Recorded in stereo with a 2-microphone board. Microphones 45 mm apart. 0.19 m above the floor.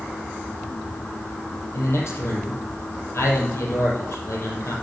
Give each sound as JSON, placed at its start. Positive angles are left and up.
{"t": 1.7, "sound": "a man speaking", "side_deg": 65, "distance_m": 4.0}